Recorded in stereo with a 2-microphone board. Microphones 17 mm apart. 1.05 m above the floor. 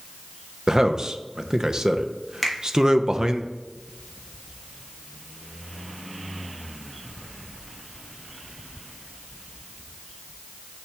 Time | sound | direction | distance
0.7 | a man speaking | 35° right (ahead or behind) | 0.5 m
2.4 | a finger snap | 10° left (ahead or behind) | 1.3 m